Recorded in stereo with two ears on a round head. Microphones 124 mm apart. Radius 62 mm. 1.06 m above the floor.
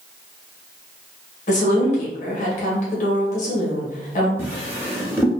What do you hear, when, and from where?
1.5 s a woman speaking: 55° left (ahead or behind), 1.2 m
4.4 s a drawer: 15° right (ahead or behind), 0.7 m